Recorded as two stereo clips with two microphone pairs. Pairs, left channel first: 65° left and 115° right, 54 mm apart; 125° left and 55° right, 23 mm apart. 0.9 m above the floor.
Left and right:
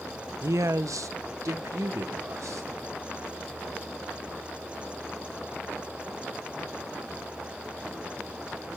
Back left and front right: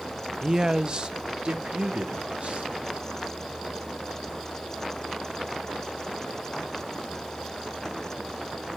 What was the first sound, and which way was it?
A man speaking, 135° right.